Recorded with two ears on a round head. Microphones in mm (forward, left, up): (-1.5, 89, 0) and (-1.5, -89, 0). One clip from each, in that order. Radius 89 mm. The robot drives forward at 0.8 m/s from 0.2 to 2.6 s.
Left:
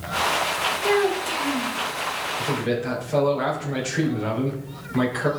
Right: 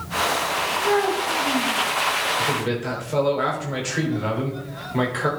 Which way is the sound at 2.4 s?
10° right (ahead or behind).